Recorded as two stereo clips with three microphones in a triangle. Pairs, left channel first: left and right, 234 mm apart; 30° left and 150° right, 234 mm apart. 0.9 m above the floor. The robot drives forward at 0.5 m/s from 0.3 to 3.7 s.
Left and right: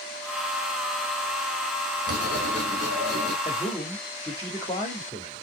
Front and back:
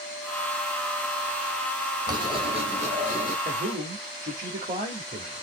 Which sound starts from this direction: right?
Writing, at 2.1 s.